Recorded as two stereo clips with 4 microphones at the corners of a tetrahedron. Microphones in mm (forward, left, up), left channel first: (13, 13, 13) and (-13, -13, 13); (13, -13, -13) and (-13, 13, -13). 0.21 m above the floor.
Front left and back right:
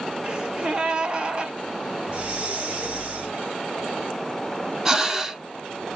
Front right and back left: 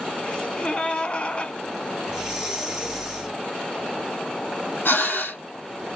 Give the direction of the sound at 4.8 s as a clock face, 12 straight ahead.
2 o'clock.